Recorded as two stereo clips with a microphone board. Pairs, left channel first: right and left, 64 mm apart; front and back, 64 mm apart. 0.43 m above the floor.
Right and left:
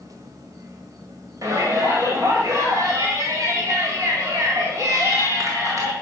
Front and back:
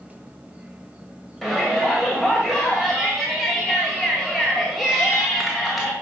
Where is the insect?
110° left, 1.1 m.